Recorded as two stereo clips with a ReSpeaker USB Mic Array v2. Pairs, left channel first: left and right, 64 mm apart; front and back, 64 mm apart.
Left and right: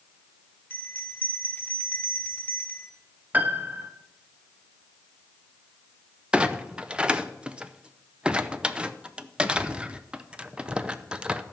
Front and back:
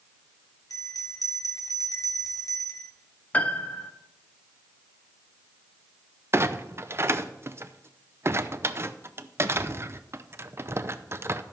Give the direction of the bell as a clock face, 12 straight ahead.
11 o'clock.